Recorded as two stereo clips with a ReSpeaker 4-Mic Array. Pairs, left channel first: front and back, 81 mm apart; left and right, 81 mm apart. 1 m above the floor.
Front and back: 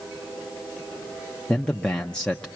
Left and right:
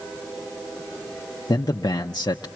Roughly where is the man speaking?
Left.